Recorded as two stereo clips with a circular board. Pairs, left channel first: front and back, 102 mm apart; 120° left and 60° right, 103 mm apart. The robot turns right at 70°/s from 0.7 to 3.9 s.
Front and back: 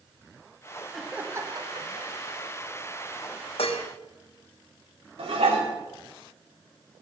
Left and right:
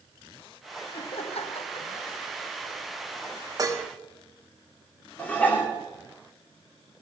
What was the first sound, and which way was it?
Laughter, 90° left.